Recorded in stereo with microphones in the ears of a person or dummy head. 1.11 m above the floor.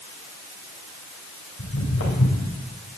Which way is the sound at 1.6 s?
70° left (ahead or behind).